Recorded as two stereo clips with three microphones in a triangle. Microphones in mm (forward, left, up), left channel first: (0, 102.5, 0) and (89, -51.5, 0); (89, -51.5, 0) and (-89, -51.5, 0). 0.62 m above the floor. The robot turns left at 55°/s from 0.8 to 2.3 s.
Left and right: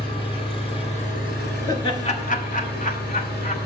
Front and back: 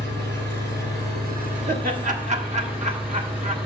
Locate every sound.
0.0 s an engine running: straight behind, 4 m; by 3.6 s 95° left, 4 m
1.7 s laughter: straight behind, 1.5 m; by 3.5 s 145° left, 1.5 m